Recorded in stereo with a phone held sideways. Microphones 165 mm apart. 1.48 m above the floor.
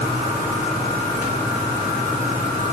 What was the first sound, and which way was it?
Only background noise.